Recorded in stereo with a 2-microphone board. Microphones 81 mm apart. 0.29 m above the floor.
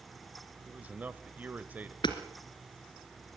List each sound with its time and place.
0.7 s a man speaking: 20° right (ahead or behind), 0.9 m
2.0 s hammering: 75° left (ahead or behind), 2.5 m